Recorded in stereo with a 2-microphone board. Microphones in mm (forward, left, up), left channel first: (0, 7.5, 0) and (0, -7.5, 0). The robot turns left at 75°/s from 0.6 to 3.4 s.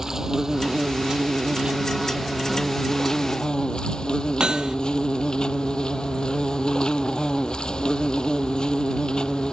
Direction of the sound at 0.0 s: 35° right.